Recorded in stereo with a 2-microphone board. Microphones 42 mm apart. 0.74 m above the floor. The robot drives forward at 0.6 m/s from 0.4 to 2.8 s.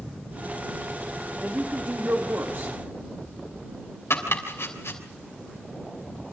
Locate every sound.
1.4 s a woman speaking: 45° right (ahead or behind), 2 m; by 2.8 s 60° right (ahead or behind), 1.7 m
4.1 s chopping: 75° left (ahead or behind), 3.5 m